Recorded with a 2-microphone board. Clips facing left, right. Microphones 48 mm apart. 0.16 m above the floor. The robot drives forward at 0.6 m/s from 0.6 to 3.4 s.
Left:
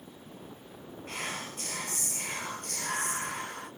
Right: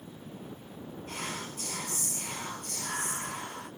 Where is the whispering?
45° left (ahead or behind), 3 m; by 3.7 s 60° left (ahead or behind), 2.5 m.